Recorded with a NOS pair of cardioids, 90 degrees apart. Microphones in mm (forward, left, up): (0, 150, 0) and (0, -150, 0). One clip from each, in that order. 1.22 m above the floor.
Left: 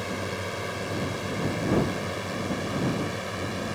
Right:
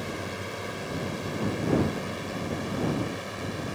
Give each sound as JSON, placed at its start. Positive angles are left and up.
{"t": 0.0, "sound": "a drone", "azimuth_deg": 25}